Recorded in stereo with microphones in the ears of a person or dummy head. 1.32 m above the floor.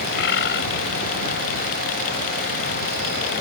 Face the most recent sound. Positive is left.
turn(degrees=75)  # may be behind; listen again after turning